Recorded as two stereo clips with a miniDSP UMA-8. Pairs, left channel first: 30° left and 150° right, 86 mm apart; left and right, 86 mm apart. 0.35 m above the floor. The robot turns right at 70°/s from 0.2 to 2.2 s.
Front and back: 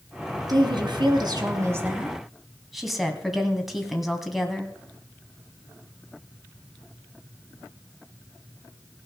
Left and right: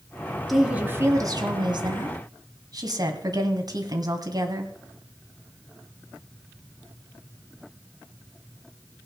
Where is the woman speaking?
Straight behind, 2 m; by 4.7 s 60° right, 2 m.